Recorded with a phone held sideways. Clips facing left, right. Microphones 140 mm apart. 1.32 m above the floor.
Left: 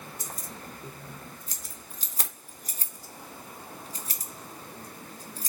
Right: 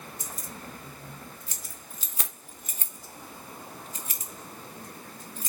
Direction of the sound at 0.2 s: 40° left (ahead or behind).